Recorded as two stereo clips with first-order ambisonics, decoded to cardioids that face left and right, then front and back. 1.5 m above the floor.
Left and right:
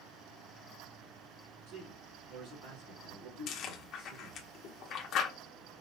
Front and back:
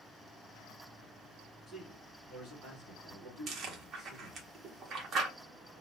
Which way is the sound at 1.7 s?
80° right.